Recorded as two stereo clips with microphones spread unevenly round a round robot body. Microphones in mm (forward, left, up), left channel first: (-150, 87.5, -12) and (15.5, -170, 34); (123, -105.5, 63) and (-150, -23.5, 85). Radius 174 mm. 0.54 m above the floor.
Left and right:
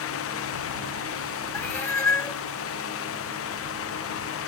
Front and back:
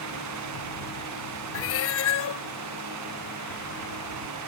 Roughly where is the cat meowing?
Ahead left.